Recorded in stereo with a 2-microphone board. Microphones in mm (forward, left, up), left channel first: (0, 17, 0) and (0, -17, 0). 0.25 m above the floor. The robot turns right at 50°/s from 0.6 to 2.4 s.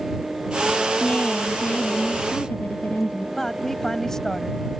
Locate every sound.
1.0 s a woman speaking: 45° left; by 3.3 s 115° left
3.4 s a woman speaking: 15° left (ahead or behind)